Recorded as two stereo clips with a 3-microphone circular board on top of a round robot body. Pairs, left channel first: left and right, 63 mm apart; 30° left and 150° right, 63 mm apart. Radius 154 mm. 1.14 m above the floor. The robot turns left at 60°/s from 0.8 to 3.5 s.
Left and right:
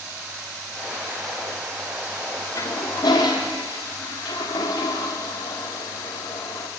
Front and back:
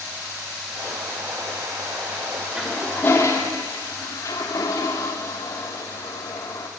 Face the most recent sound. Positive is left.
turn(degrees=65)